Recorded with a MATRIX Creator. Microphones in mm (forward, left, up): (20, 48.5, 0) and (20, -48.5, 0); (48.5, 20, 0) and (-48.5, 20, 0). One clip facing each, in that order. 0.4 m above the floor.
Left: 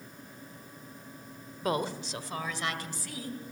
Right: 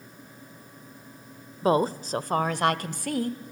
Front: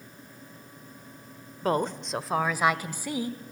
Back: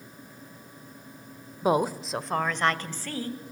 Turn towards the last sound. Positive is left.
turn(degrees=-70)